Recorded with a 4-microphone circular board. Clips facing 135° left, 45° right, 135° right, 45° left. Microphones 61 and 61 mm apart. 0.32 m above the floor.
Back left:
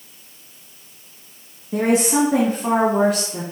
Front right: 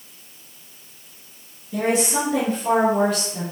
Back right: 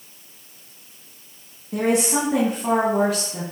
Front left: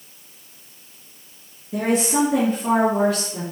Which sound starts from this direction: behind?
A woman speaking, at 1.7 s.